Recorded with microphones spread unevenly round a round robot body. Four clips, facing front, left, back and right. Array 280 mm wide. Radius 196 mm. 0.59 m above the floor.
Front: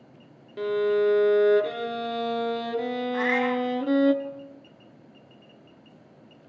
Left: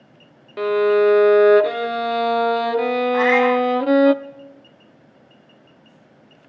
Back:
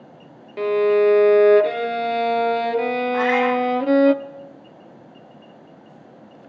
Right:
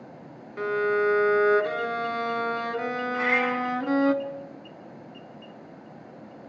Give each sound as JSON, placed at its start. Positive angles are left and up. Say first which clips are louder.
{"t": 0.6, "sound": "a violin", "louder": "left 8 dB, back 6 dB", "azimuth_deg": 140, "distance_m": 0.8}
{"t": 3.1, "sound": "a cat meowing", "louder": "left 10 dB, back 6 dB", "azimuth_deg": 140, "distance_m": 2.0}